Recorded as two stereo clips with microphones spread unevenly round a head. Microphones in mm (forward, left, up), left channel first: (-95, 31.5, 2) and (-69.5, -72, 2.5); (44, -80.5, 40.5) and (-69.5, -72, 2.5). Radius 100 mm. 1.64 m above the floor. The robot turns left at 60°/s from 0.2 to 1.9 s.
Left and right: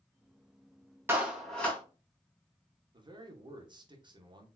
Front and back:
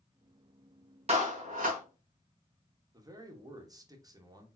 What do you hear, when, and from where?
1.1 s a clap: 145° right, 1.8 m; by 1.8 s 170° left, 1.8 m
2.9 s a man speaking: 125° right, 1.5 m